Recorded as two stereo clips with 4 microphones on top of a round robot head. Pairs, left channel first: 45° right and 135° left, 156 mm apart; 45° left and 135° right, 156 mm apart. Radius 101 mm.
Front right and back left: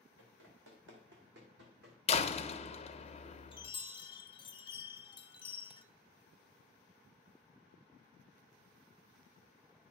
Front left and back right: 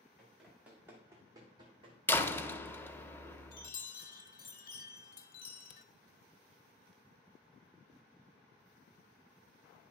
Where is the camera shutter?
50° left, 0.6 m.